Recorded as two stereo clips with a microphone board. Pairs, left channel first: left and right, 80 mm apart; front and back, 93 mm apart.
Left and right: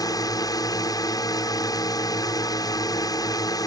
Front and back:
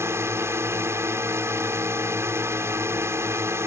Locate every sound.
0.0 s a drone: 120° left